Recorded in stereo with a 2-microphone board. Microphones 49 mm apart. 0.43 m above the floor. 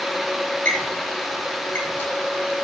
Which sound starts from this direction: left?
A squeak, at 0.7 s.